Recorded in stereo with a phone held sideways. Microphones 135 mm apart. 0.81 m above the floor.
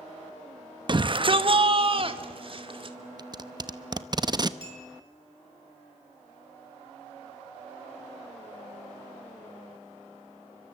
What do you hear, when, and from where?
0.9 s a shout: 35° right (ahead or behind), 0.9 m; by 3.0 s 40° right (ahead or behind), 2.5 m
3.2 s tape being pulled: 30° right (ahead or behind), 0.8 m
4.6 s a clink: 40° right (ahead or behind), 5.5 m